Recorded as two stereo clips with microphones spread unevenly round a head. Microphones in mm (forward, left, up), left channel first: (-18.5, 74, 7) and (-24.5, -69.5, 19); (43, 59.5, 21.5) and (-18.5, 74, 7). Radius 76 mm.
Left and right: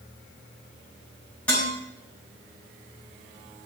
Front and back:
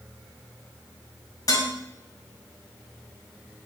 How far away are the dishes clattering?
About 7 m.